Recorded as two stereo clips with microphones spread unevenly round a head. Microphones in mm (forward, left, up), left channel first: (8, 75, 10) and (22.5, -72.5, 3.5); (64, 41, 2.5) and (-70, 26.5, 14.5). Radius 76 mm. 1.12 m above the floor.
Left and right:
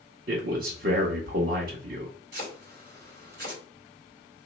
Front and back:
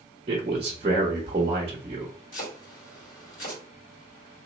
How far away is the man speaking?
About 0.9 m.